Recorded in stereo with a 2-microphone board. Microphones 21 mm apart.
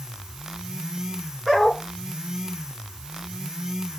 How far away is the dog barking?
About 9 m.